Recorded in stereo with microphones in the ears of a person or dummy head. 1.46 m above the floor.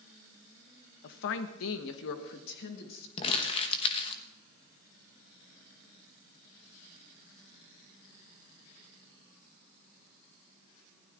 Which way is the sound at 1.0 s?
50° left (ahead or behind).